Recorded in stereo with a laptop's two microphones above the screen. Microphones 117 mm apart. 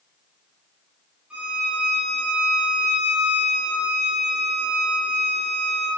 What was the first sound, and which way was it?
A violin, 10° right (ahead or behind).